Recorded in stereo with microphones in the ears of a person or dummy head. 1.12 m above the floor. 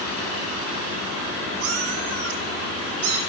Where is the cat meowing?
75° right (ahead or behind), 4.5 m.